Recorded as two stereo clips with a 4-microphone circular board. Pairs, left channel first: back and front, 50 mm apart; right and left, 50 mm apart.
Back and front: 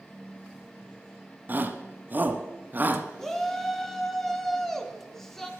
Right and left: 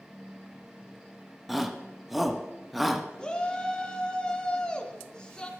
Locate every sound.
1.5 s a shout: straight ahead, 1.2 m
3.2 s a shout: 110° right, 1.1 m